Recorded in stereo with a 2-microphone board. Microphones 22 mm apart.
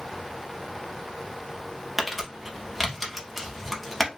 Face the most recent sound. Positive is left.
turn(degrees=0)  # may be behind; listen again after turning